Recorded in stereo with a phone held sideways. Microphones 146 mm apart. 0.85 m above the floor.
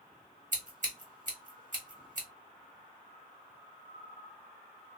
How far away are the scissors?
About 1.6 m.